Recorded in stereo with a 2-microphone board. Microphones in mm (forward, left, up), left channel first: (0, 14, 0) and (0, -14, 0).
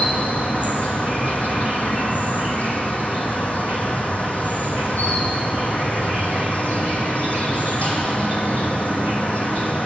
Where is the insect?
60° left (ahead or behind), 0.9 m.